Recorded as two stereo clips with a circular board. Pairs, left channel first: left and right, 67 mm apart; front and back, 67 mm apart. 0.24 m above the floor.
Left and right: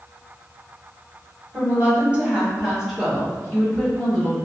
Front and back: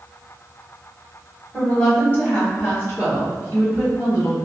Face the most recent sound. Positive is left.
turn(degrees=15)